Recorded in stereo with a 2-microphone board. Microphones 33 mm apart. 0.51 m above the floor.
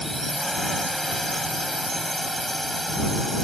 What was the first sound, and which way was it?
A drone, 10° left (ahead or behind).